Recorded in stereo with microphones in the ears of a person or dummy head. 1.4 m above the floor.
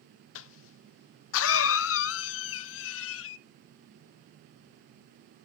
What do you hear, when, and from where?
0.3 s a cough: 75° left (ahead or behind), 0.6 m